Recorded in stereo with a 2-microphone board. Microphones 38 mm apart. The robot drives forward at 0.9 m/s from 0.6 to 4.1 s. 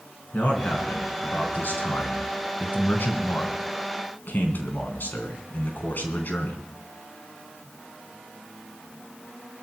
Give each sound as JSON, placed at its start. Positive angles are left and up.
{"t": 0.3, "sound": "a man speaking", "side_deg": 50, "distance_m": 3.5}